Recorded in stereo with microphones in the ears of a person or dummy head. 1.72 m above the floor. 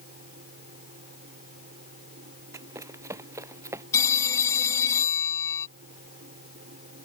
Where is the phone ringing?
20° left (ahead or behind).